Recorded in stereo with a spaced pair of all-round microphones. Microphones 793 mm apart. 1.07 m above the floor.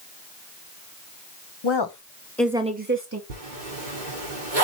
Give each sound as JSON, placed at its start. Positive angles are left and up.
{"t": 1.6, "sound": "a woman speaking", "side_deg": 40, "distance_m": 0.9}
{"t": 3.3, "sound": "a zipper", "side_deg": -70, "distance_m": 3.0}